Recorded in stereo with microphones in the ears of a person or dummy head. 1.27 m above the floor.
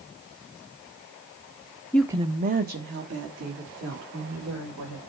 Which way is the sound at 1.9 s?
10° left (ahead or behind).